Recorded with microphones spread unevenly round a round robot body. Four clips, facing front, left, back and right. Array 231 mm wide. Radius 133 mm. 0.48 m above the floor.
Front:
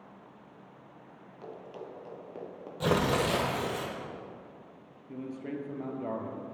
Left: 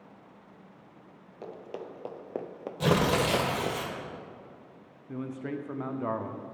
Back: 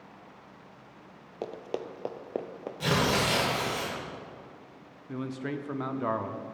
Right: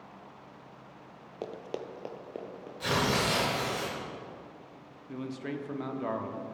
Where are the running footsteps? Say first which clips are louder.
Right 2 dB, back 8 dB; 150° right, 0.8 m; by 3.8 s 95° left, 1.1 m.